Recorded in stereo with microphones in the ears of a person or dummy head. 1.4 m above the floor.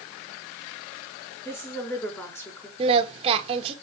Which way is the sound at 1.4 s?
10° left (ahead or behind).